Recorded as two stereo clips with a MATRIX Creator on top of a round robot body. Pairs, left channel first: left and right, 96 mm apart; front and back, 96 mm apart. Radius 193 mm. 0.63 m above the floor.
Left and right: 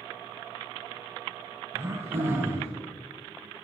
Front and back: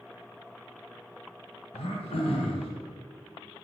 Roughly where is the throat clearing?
Ahead right.